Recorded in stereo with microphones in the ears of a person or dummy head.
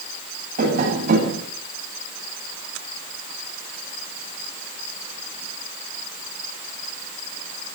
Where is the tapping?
50° right (ahead or behind), 10 m.